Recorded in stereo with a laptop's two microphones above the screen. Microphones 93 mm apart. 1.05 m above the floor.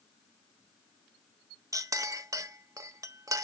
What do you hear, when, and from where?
1.7 s a clink: 35° right (ahead or behind), 0.7 m